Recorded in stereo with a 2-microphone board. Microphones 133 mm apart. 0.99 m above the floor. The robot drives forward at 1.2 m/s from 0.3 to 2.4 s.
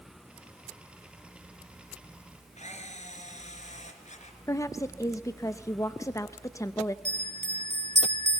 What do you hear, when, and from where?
2.6 s a camera shutter: 70° left (ahead or behind), 3 m
4.5 s a woman speaking: 25° left (ahead or behind), 0.7 m
7.0 s a bell: 65° right (ahead or behind), 3 m